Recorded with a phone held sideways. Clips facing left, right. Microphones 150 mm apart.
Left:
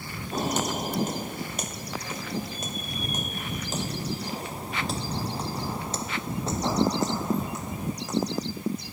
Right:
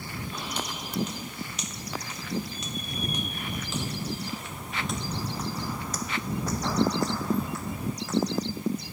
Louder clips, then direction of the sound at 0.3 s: Left 11 dB; 45° left (ahead or behind).